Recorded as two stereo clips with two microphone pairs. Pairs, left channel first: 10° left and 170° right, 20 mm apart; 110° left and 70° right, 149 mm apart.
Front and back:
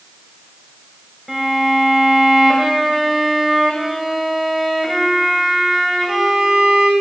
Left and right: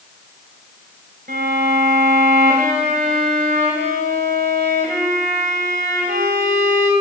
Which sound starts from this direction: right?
A violin, at 1.3 s.